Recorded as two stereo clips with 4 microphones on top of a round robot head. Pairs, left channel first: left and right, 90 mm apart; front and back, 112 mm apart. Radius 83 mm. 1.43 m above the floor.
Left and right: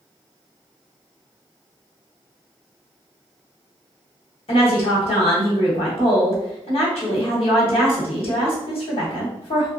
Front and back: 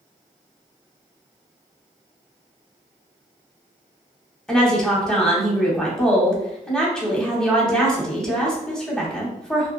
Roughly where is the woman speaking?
Left.